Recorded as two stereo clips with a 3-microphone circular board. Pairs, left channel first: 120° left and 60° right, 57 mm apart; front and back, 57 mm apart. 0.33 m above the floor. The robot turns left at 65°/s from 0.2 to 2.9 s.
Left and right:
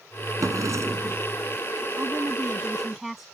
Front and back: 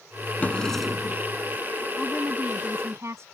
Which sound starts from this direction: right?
A woman speaking, at 2.0 s.